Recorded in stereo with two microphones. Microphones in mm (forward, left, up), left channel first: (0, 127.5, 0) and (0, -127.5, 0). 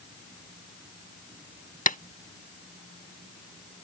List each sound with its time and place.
1.9 s tapping: 30° left (ahead or behind)